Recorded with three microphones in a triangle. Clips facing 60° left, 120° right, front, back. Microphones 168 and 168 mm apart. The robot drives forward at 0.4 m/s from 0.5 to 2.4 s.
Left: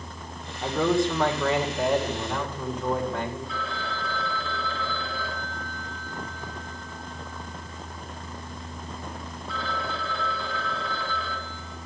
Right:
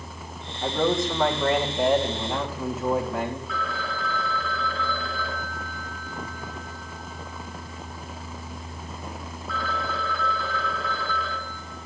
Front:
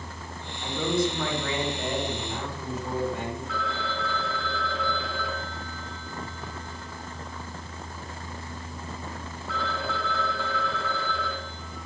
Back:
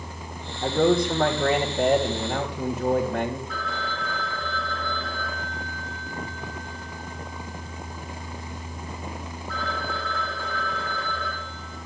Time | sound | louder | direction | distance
0.6 | a man speaking | left 1 dB, back 6 dB | 145° left | 2 m
3.5 | a phone ringing | right 2 dB, front 1 dB | 5° right | 4 m